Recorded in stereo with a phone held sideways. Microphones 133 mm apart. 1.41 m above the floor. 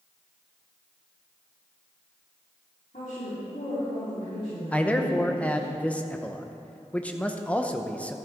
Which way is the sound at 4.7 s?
10° left (ahead or behind).